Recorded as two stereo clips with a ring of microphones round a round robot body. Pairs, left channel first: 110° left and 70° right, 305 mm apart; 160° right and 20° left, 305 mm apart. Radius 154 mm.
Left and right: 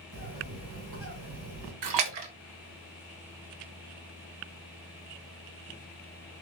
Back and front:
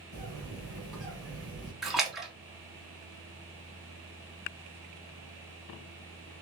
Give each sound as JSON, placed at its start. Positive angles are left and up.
{"t": 0.1, "sound": "a bird", "azimuth_deg": -65, "distance_m": 2.5}
{"t": 1.8, "sound": "a splash", "azimuth_deg": -65, "distance_m": 1.0}